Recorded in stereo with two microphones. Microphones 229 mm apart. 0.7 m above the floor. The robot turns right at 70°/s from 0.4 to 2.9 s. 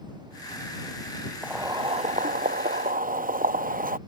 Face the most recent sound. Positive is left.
turn(degrees=-70)